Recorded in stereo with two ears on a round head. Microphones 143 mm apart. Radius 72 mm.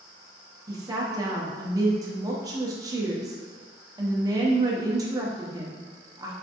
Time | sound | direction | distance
0.7 | a woman speaking | 25° right (ahead or behind) | 0.5 m